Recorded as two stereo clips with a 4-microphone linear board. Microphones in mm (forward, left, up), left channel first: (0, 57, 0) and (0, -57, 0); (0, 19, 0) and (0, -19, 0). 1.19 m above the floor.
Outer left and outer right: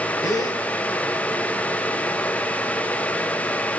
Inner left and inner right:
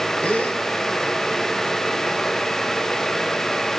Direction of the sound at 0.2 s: 35° left (ahead or behind).